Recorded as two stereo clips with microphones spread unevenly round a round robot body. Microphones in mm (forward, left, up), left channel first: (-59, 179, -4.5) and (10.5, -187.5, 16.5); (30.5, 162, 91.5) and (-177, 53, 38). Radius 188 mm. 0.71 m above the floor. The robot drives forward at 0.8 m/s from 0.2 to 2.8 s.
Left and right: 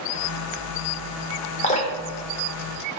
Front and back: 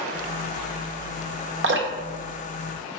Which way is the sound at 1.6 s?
170° left.